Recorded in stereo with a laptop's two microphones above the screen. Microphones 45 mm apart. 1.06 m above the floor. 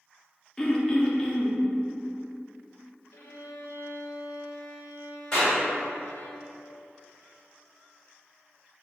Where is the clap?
15° left (ahead or behind), 1.9 m.